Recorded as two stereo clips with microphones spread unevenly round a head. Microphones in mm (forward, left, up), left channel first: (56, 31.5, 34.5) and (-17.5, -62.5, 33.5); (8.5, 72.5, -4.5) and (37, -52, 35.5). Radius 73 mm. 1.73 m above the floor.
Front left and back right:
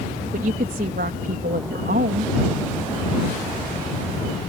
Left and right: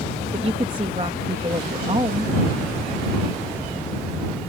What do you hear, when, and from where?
0.3 s a woman speaking: 130° right